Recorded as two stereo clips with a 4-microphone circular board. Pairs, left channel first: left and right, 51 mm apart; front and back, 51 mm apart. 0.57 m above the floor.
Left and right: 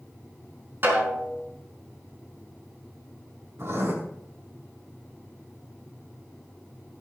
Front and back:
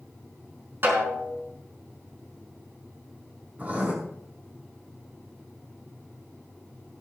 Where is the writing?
120° right, 5 m.